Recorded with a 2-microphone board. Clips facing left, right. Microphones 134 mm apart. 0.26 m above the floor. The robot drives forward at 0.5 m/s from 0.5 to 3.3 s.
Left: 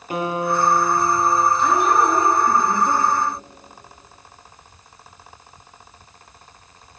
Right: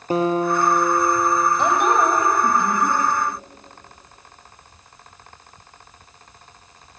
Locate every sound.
0.1 s a guitar: 35° right (ahead or behind), 3.5 m; by 1.5 s 30° right (ahead or behind), 3.5 m
1.6 s a woman speaking: 75° right (ahead or behind), 10 m; by 3.0 s 80° right, 9.5 m